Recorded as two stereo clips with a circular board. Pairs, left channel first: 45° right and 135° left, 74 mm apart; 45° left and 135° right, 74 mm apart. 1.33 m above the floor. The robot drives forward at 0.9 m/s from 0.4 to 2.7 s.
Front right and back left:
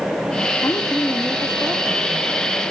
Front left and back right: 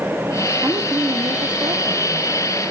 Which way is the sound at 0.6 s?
85° right.